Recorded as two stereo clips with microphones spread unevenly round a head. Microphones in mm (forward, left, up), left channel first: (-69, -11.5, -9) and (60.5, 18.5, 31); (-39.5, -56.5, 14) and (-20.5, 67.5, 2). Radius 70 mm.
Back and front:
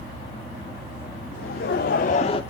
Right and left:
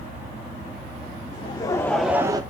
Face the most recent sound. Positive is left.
turn(degrees=140)